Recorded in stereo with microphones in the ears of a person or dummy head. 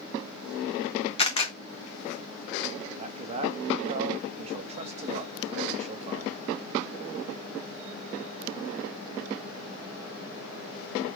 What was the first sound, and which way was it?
A camera shutter, 30° left (ahead or behind).